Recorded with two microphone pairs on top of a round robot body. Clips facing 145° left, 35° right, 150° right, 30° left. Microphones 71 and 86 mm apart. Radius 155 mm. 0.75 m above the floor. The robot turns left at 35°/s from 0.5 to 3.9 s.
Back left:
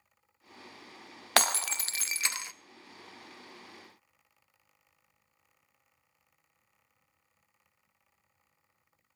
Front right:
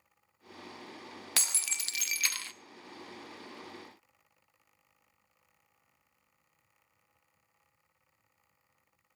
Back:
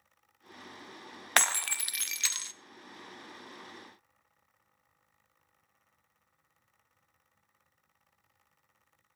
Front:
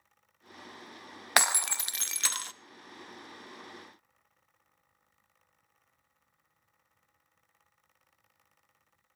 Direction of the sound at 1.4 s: 110° left.